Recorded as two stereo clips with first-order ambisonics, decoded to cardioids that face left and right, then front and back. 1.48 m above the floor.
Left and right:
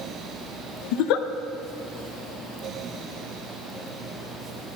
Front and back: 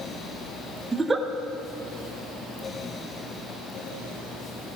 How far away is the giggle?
About 0.9 m.